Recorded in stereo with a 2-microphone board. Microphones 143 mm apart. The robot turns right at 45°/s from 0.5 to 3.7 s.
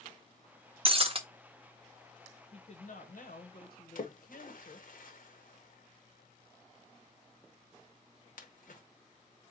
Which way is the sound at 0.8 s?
40° right (ahead or behind).